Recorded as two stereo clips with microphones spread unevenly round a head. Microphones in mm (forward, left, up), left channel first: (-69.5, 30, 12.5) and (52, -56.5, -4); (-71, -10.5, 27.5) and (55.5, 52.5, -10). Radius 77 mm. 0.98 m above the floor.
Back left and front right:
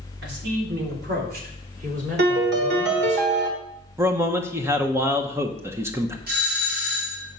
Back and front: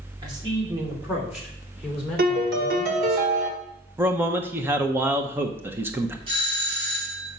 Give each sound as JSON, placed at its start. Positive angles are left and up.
{"t": 0.2, "sound": "a man speaking", "azimuth_deg": -35, "distance_m": 2.5}
{"t": 2.2, "sound": "a piano", "azimuth_deg": -10, "distance_m": 1.5}
{"t": 4.0, "sound": "a man speaking", "azimuth_deg": 10, "distance_m": 0.8}
{"t": 6.3, "sound": "a doorbell", "azimuth_deg": -25, "distance_m": 3.0}